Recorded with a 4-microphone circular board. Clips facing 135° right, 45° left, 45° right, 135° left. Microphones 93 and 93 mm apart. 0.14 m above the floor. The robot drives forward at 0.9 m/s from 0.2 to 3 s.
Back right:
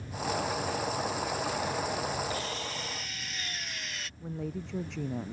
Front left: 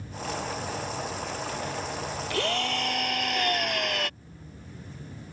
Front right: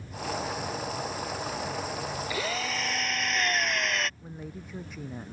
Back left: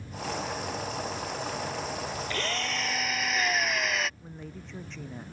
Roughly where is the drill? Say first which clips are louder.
Front left 7 dB, front right 1 dB; ahead left.